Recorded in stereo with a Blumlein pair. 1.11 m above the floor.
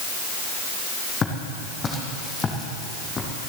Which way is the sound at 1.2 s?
20° left.